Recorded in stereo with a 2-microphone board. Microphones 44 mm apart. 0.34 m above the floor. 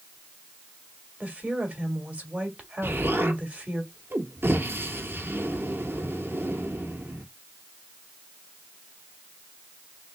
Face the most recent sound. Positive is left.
turn(degrees=-60)  # may be behind; listen again after turning